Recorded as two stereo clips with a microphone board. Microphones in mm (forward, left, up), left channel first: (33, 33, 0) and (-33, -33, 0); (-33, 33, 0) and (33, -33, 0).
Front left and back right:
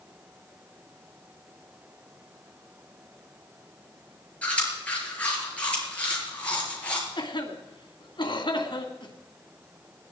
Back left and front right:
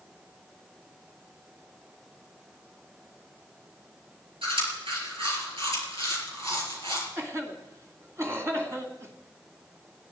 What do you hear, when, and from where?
4.4 s chewing: 30° right, 5.5 m
7.2 s a cough: 15° left, 2.5 m